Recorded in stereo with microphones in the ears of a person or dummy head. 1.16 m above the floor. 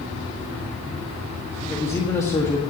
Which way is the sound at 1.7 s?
15° left (ahead or behind).